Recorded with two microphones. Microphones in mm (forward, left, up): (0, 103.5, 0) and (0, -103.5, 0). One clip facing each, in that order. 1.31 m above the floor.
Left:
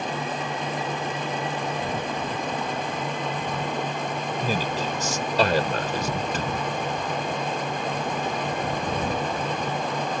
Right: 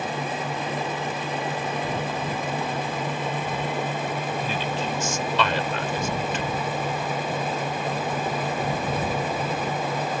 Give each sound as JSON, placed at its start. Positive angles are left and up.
{"t": 4.4, "sound": "a man speaking", "side_deg": 40}